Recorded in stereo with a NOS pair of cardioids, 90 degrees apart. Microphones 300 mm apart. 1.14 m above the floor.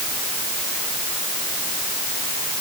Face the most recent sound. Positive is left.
No sound to turn to.